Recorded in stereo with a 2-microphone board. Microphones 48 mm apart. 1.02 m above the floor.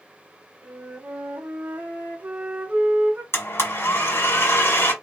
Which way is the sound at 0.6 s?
30° right (ahead or behind).